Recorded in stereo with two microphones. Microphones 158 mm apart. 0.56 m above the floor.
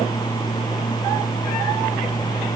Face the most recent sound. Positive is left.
No sound to turn to.